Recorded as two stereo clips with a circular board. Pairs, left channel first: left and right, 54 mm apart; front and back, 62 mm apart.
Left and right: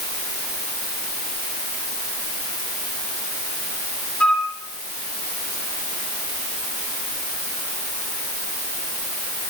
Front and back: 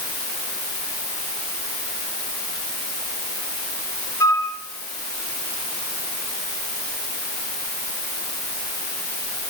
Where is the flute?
20° left, 5.5 m.